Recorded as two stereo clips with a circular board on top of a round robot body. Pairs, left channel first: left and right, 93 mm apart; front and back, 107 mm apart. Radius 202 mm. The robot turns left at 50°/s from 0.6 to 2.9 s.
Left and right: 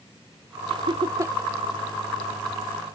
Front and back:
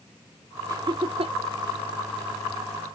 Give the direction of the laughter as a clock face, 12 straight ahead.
4 o'clock.